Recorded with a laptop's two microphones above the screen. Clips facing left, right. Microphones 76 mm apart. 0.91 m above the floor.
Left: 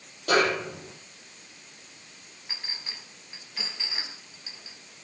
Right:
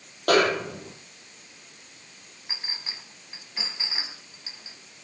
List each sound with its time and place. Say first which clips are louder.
0.3 s a snare drum: right 3 dB; 65° right (ahead or behind), 9.5 m
2.5 s a clink: right 2 dB; 20° right (ahead or behind), 4 m